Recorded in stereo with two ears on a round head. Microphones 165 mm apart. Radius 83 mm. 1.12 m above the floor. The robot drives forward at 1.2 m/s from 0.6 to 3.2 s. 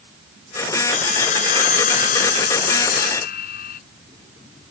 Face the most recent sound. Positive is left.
turn(degrees=50)  # may be behind; listen again after turning